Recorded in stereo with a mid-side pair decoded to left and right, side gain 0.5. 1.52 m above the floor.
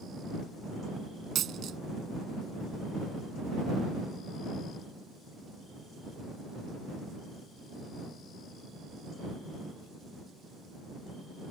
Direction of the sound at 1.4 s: 60° right.